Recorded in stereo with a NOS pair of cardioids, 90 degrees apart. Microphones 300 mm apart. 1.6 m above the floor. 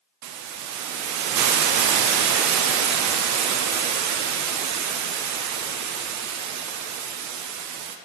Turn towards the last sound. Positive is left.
turn(degrees=-70)